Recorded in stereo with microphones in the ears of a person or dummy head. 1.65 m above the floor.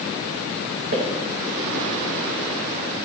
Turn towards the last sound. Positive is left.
turn(degrees=-55)  # may be behind; listen again after turning